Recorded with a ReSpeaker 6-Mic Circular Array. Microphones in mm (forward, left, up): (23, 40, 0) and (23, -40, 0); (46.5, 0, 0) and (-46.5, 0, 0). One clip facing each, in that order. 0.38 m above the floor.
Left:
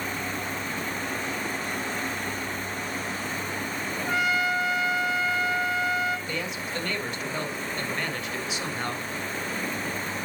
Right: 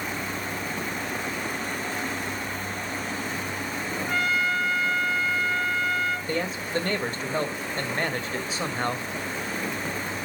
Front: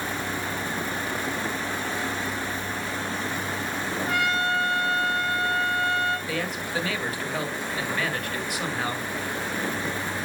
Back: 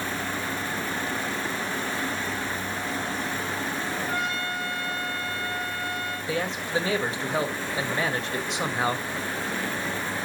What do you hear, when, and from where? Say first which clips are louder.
4.1 s a trumpet: left 1 dB, front 4 dB; 10° left, 1.9 m
6.3 s a man speaking: right 4 dB, back 2 dB; 125° right, 1.8 m